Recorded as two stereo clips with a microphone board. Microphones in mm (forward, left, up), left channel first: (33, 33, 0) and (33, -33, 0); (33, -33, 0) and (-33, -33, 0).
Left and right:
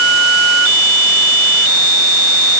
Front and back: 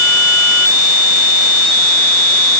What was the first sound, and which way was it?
Only background noise.